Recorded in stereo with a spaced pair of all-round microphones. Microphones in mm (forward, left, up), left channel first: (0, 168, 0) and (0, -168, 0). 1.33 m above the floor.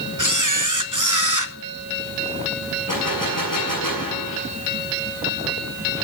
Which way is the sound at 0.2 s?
60° right (ahead or behind).